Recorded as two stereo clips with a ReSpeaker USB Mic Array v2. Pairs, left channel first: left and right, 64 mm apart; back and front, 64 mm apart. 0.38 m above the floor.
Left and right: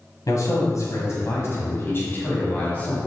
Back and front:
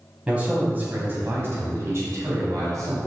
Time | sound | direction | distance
0.3 | a man speaking | 70° left | 2 m